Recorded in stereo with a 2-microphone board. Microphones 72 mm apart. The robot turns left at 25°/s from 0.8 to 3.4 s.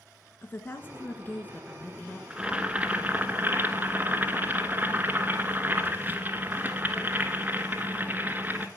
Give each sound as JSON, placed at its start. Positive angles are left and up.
{"t": 0.4, "sound": "a woman speaking", "side_deg": 30, "distance_m": 1.2}
{"t": 2.3, "sound": "boiling", "side_deg": -15, "distance_m": 1.3}